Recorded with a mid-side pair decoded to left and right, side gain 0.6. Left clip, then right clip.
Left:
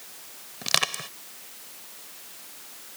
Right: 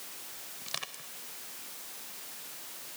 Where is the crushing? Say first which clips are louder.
Left 15 dB; 60° left.